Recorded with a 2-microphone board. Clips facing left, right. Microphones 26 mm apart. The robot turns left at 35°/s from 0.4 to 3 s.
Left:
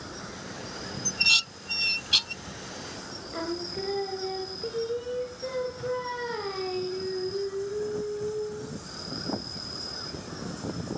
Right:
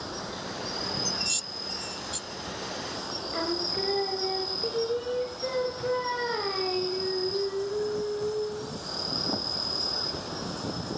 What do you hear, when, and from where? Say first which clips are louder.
0.0 s an insect: right 4 dB; 45° right; by 11.0 s 135° right
1.1 s dishes clattering: left 8 dB; 45° left (ahead or behind); by 2.4 s 70° left (ahead or behind)
3.3 s singing: right 3 dB; 15° right (ahead or behind)